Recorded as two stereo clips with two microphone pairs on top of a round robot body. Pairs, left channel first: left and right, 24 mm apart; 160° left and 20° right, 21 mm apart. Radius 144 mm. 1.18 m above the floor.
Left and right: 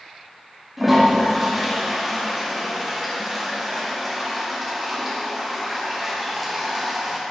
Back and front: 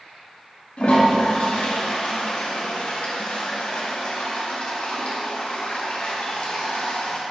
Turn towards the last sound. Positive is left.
turn(degrees=-175)